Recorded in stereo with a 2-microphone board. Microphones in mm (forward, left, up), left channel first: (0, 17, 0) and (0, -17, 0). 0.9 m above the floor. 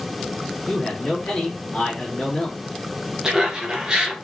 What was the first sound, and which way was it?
A man speaking, 25° left (ahead or behind).